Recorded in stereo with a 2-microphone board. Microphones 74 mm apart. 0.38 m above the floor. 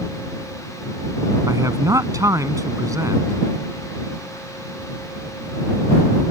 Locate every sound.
1.5 s a man speaking: 50° right (ahead or behind)